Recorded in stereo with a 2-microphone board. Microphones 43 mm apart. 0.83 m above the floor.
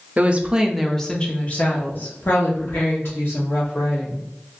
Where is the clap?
I don't hear a clap.